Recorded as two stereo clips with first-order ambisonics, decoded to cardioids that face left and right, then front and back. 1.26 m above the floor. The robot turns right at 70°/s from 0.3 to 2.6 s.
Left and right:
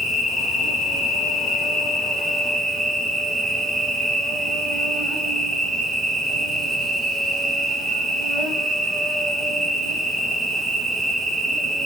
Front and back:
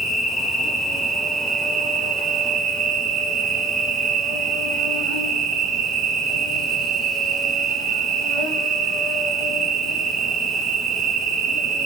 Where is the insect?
60° left, 1.1 m; by 11.9 s 140° right, 1.1 m.